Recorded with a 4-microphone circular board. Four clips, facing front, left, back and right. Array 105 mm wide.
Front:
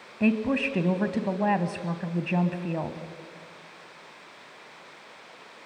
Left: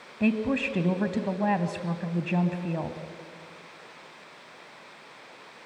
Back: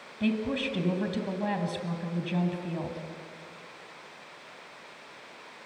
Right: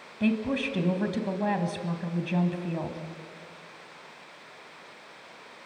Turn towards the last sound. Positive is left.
turn(degrees=20)